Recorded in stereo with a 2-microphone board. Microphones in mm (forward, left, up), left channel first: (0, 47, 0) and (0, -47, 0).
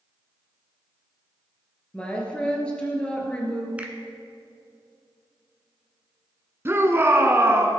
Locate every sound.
1.9 s a woman speaking: 10° left (ahead or behind), 2.5 m
3.8 s a finger snap: 15° right (ahead or behind), 1.5 m
6.7 s a shout: 25° right (ahead or behind), 1.5 m